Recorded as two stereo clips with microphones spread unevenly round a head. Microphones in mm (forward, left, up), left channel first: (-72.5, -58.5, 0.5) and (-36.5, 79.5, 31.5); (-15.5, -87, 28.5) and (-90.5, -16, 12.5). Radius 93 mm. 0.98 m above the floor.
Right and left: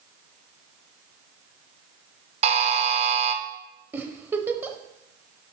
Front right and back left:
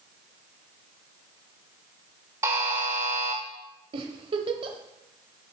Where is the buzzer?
60° left, 0.8 m.